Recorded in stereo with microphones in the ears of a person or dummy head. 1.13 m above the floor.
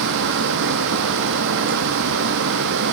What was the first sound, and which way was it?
A fan, 70° right (ahead or behind).